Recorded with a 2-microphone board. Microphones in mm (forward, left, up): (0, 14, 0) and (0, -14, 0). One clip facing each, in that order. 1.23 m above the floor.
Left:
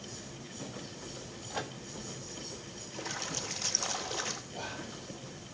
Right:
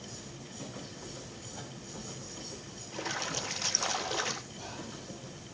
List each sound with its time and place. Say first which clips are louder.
1.5 s a microwave: left 10 dB; 80° left, 1.5 m
2.9 s a splash: right 3 dB; 20° right (ahead or behind), 1.1 m
4.5 s whispering: left 3 dB; 85° left, 8 m